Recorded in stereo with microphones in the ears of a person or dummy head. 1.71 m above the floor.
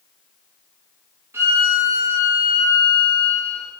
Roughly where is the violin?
Centre.